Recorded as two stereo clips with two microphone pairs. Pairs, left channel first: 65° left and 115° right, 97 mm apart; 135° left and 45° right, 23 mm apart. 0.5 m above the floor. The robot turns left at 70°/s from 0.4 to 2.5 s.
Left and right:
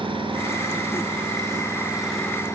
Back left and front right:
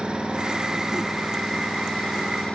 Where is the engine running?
85° right, 6 m; by 2.6 s 125° left, 6 m.